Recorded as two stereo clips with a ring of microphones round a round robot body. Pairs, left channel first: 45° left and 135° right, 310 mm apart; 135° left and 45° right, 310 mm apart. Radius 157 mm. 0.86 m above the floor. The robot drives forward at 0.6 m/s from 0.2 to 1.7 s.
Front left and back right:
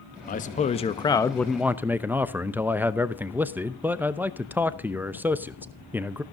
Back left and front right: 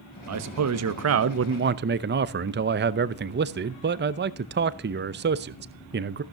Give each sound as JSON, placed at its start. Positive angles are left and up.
{"t": 0.3, "sound": "a man speaking", "azimuth_deg": -15, "distance_m": 1.3}